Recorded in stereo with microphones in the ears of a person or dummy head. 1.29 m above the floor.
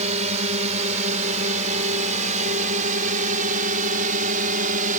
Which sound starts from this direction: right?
A drone, at 0.0 s.